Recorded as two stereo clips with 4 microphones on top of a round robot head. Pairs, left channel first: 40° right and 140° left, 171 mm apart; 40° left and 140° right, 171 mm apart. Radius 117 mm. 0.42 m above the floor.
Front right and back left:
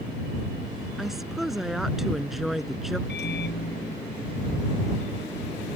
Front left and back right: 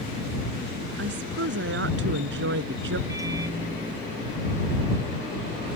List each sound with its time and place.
1.0 s a woman speaking: 130° right
3.1 s a microwave: 70° right